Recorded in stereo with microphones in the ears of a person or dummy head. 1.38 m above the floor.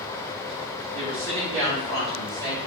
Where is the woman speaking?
85° right, 3 m.